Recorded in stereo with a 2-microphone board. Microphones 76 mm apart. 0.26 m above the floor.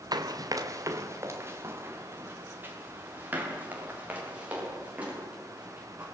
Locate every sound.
0.1 s running footsteps: 60° right (ahead or behind), 2 m; by 6.0 s 15° right (ahead or behind), 10 m